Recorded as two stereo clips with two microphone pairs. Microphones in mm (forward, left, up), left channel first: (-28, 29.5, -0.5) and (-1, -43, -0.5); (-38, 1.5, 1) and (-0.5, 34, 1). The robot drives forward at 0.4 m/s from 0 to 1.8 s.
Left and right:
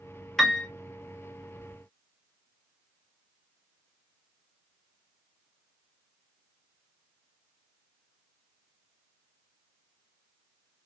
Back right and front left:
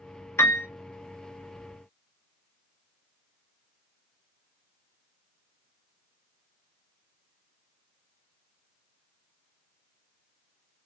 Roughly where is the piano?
Behind.